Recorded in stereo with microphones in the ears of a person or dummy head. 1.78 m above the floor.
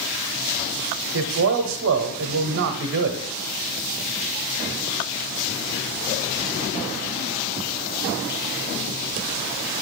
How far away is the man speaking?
About 1.0 m.